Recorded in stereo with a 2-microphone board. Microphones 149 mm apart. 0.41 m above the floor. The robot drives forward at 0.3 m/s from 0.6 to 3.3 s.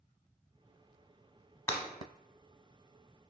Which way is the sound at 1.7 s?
20° left (ahead or behind).